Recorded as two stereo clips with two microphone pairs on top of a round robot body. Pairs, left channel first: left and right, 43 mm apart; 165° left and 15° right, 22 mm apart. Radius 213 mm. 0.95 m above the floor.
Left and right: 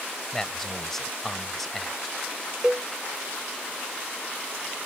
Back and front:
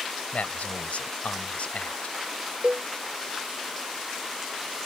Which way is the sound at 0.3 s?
170° left.